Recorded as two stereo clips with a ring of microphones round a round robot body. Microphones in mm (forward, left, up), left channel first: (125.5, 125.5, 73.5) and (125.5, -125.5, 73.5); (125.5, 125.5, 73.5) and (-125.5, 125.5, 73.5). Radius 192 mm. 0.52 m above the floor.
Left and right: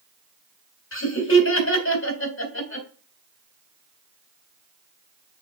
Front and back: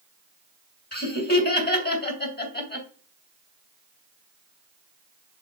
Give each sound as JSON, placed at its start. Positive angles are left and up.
{"t": 0.9, "sound": "laughter", "azimuth_deg": 50, "distance_m": 2.5}